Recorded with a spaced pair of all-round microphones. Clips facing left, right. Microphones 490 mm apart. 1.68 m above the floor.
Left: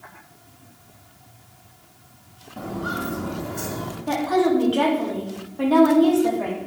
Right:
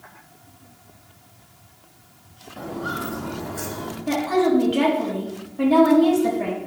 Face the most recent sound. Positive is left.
turn(degrees=-45)  # may be behind; listen again after turning